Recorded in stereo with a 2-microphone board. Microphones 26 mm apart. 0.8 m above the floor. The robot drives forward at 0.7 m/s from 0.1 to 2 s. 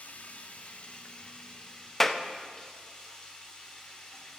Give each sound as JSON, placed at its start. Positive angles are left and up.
{"t": 0.0, "sound": "running water", "side_deg": 70, "distance_m": 1.0}
{"t": 2.0, "sound": "a clap", "side_deg": 10, "distance_m": 0.6}